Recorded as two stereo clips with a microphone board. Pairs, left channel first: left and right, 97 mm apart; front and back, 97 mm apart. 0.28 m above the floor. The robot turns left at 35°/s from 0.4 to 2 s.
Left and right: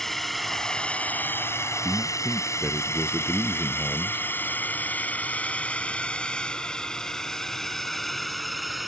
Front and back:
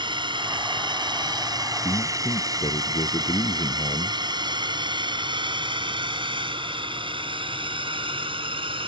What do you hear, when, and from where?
0.0 s a drone: 175° left; by 8.9 s straight behind
1.8 s a man speaking: 10° right; by 4.2 s 15° right